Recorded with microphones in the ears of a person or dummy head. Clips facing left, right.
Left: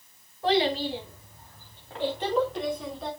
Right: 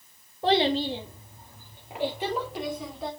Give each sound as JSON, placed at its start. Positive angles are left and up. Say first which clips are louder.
{"t": 0.4, "sound": "a child speaking", "louder": "right 1 dB", "side_deg": -25, "distance_m": 1.4}